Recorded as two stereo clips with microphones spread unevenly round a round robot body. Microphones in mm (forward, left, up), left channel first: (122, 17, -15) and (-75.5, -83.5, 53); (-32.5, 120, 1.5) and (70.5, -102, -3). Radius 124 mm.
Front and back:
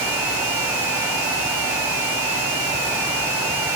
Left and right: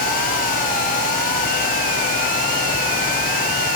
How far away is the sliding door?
I don't hear a sliding door.